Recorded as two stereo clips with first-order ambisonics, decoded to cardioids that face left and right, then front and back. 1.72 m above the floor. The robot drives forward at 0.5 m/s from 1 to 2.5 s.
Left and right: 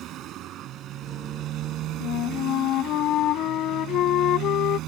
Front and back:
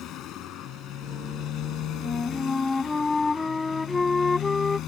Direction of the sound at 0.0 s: 45° right.